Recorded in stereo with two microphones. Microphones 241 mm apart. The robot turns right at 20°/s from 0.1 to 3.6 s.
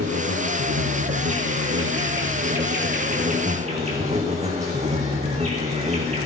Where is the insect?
100° right, 2.5 m; by 6.3 s 30° right, 2.5 m.